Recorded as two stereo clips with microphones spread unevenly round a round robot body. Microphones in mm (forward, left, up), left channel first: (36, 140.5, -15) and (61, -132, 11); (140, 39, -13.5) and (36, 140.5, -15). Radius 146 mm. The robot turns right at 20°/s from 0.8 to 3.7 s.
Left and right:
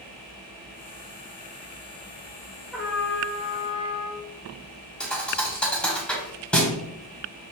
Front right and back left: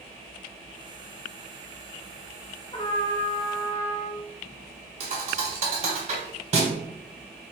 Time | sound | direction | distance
2.7 | a trumpet | 10° left | 1.3 m
5.0 | a thud | 175° right | 0.7 m